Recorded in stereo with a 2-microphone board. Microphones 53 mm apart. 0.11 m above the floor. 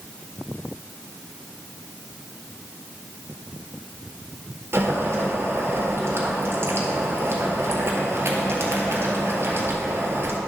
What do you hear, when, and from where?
4.7 s boiling: 50° right (ahead or behind), 1.6 m